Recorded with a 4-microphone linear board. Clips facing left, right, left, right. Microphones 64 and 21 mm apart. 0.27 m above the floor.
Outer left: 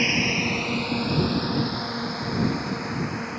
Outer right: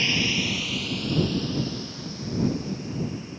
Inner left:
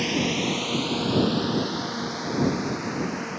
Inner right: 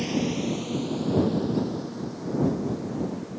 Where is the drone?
25° left (ahead or behind); by 3.4 s 65° left (ahead or behind).